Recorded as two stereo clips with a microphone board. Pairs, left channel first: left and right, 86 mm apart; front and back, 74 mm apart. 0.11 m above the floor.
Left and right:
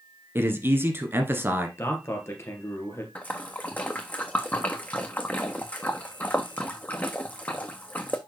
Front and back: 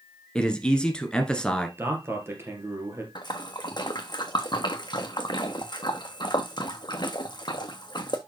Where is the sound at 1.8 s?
135° left, 2.5 m.